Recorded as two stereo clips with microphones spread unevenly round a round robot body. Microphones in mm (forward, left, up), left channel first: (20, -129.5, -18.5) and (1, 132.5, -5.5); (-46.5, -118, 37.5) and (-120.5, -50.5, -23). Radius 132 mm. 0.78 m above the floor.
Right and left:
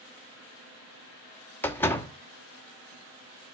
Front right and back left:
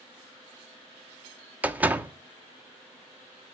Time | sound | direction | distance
1.6 | a door slam | 165° right | 1.0 m